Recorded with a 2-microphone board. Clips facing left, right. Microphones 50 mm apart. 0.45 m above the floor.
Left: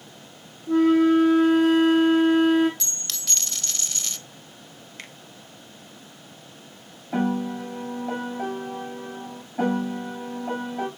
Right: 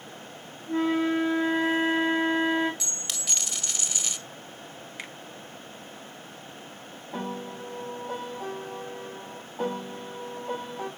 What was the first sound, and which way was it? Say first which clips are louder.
A flute: left 8 dB; 85° left.